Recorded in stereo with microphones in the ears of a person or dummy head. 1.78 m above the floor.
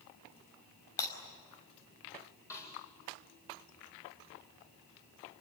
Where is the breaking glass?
20° left (ahead or behind), 4.5 m.